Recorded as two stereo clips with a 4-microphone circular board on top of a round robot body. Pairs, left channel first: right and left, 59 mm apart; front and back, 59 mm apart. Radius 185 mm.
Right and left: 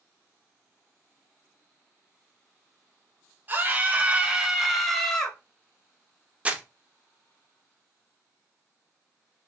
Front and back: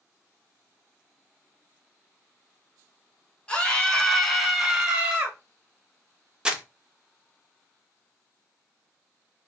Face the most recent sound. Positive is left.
turn(degrees=120)